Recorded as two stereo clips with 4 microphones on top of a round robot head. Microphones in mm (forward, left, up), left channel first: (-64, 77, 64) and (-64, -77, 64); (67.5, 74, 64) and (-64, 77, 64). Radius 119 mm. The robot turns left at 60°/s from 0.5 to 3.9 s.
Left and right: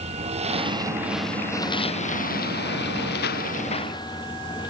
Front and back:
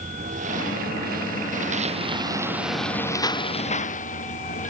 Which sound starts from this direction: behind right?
A lawn mower, at 0.0 s.